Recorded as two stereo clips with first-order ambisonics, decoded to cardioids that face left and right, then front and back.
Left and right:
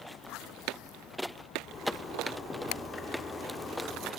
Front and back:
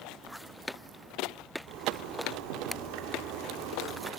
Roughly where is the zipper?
Behind.